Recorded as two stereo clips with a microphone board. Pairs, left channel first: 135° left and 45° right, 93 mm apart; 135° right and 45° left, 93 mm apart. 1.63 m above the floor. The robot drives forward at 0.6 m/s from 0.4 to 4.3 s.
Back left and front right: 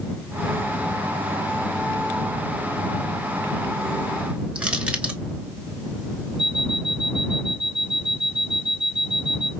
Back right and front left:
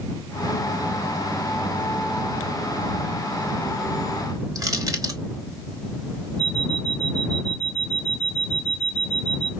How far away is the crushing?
About 1.0 m.